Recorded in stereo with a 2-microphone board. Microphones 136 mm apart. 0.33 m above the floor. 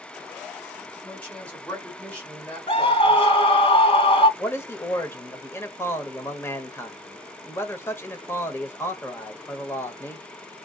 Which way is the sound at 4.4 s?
15° left (ahead or behind).